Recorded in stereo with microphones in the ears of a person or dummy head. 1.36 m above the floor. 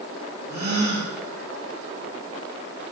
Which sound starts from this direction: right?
A gasp, at 0.5 s.